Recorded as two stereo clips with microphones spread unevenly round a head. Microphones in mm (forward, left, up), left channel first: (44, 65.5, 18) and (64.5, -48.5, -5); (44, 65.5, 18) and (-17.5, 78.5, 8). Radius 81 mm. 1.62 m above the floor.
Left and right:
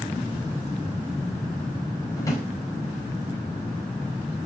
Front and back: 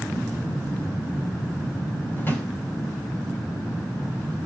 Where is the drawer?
40° left, 4.5 m.